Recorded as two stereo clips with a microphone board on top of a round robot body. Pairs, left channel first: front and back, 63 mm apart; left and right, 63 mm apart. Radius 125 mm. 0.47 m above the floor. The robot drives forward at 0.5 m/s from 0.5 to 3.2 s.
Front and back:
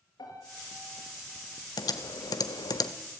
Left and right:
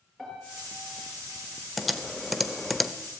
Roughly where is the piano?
Ahead.